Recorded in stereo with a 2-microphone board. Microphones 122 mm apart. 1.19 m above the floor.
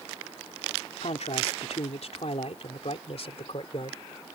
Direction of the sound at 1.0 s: 75° left (ahead or behind).